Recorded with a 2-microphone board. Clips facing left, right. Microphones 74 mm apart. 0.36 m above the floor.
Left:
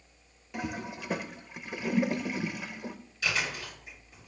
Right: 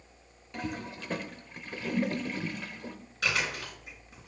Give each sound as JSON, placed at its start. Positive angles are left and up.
{"t": 0.5, "sound": "a toilet flushing", "side_deg": 10, "distance_m": 0.5}
{"t": 3.2, "sound": "chewing", "side_deg": -55, "distance_m": 4.0}